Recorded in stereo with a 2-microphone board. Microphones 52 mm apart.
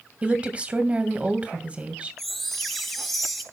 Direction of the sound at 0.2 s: 25° right (ahead or behind).